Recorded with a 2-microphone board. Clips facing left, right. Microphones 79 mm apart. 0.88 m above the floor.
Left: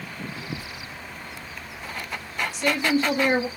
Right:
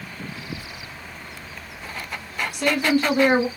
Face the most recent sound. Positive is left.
turn(degrees=-60)  # may be behind; listen again after turning